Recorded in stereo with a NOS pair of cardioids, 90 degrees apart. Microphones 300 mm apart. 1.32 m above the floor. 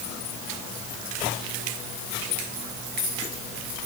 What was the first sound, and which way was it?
Only background noise.